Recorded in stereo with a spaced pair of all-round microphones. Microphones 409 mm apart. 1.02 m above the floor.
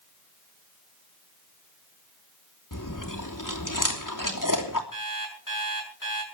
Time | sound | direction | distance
2.7 | chewing | 50° left (ahead or behind) | 3 m
4.9 | an alarm clock | 50° left (ahead or behind) | 6.5 m